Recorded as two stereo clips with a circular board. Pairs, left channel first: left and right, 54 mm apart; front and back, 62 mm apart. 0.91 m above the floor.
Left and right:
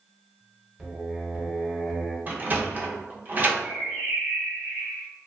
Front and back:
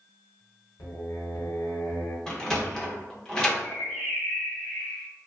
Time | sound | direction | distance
0.8 | singing | 10° right | 1.0 m
2.3 | a sliding door | 70° right | 0.6 m
3.6 | a bird | 85° right | 1.0 m